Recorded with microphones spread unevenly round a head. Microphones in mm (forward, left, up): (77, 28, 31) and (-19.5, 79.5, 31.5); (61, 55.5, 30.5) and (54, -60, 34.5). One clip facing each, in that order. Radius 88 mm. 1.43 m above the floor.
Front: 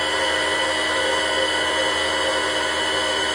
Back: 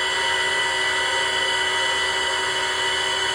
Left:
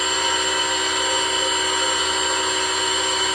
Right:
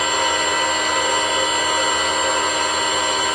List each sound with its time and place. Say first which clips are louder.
0.0 s a machine running: front 3 dB, right 4 dB; 60° right, 2.5 m